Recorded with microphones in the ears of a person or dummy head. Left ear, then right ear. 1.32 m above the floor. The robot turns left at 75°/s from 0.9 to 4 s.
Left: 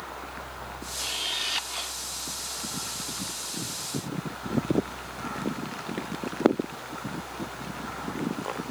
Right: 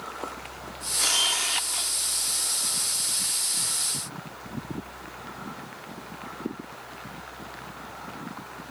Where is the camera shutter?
120° right; by 1.9 s 165° left.